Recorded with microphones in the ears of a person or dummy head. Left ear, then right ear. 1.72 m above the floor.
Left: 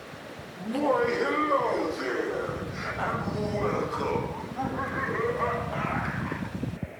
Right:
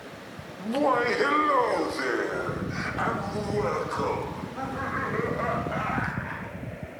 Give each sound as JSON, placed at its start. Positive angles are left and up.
{"t": 0.6, "sound": "laughter", "side_deg": -15, "distance_m": 1.5}